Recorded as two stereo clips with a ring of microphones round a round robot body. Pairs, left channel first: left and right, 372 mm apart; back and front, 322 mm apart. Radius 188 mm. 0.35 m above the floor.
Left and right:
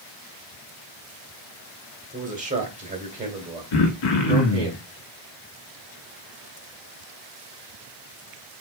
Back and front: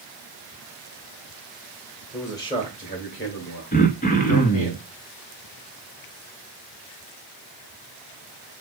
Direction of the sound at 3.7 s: 115° left.